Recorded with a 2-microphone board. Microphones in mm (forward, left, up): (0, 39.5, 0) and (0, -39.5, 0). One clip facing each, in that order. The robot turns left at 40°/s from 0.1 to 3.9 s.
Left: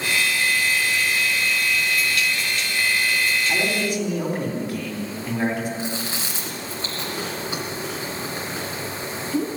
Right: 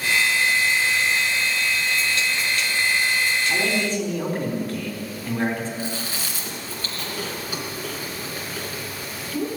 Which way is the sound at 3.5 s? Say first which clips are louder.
Even; 25° left (ahead or behind).